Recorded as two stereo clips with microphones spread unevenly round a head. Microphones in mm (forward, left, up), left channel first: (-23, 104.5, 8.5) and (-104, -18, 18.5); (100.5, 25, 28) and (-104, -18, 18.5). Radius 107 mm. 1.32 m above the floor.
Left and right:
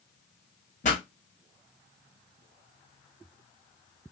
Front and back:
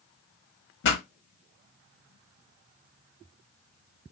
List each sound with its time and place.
0.8 s a pop: 10° left, 1.2 m